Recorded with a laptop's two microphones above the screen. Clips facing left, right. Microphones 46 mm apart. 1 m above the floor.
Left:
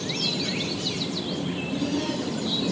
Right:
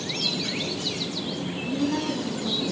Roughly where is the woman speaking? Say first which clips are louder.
Right 3 dB; right.